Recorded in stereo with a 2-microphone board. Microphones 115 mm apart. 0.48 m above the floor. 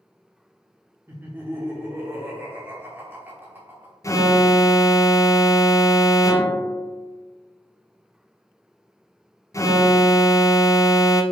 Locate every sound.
1.1 s laughter: 20° right (ahead or behind), 1.1 m
4.0 s an alarm: 30° left (ahead or behind), 0.6 m